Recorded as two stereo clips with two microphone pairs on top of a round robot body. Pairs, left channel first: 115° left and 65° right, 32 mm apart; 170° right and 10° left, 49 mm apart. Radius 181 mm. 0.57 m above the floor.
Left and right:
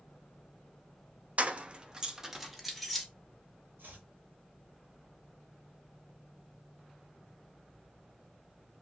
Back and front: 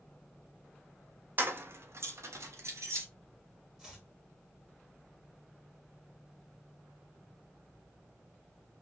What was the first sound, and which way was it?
Keys jangling, 35° right.